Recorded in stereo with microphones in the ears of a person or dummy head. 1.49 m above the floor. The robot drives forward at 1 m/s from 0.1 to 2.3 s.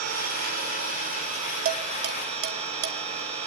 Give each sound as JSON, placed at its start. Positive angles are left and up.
{"t": 0.0, "sound": "an engine running", "side_deg": -55, "distance_m": 4.0}
{"t": 1.6, "sound": "dishes clattering", "side_deg": -50, "distance_m": 2.5}